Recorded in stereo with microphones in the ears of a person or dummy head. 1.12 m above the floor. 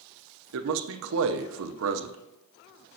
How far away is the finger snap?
No finger snap in this recording.